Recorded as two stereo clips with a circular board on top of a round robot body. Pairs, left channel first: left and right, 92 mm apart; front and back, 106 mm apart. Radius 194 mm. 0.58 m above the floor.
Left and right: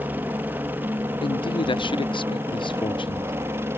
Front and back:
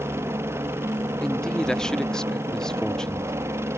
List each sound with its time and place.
0.0 s a helicopter: 140° right; by 3.8 s 135° right
1.2 s a man speaking: 85° left